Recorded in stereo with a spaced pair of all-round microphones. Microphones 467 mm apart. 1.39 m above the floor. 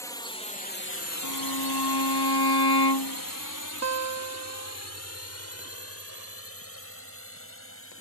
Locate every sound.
0.0 s a drone: 5° left (ahead or behind); by 8.0 s 25° left (ahead or behind)
1.2 s a violin: 55° left (ahead or behind)
3.8 s a guitar: 35° right (ahead or behind)